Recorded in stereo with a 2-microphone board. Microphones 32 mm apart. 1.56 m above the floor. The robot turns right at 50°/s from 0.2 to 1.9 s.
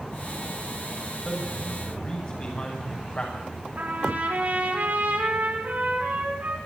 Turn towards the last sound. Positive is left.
turn(degrees=-70)  # may be behind; listen again after turning